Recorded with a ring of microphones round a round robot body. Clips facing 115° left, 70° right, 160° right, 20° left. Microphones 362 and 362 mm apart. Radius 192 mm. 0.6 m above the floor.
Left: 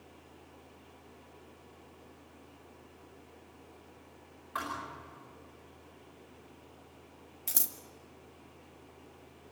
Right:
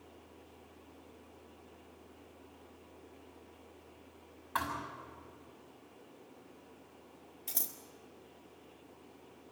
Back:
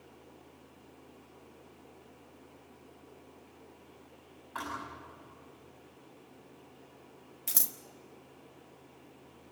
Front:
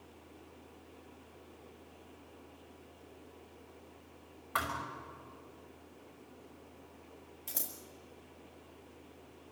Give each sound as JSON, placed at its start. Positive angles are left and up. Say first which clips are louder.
{"t": 4.5, "sound": "a thud", "louder": "right 1 dB, front 1 dB", "azimuth_deg": 5, "distance_m": 5.5}
{"t": 7.5, "sound": "scissors", "louder": "left 2 dB, back 2 dB", "azimuth_deg": 155, "distance_m": 1.8}